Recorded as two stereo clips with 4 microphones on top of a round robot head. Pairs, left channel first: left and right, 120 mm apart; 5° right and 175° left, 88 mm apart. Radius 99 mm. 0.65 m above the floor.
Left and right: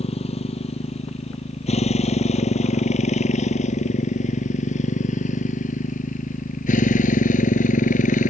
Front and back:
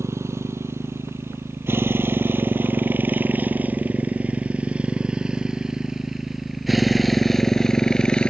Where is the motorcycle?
120° left; by 8.3 s 75° left.